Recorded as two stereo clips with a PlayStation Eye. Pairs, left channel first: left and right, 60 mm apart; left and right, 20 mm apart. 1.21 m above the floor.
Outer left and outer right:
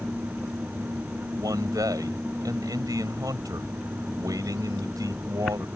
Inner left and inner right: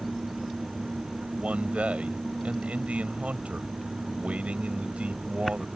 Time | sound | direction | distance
1.4 | a man speaking | 85° right | ?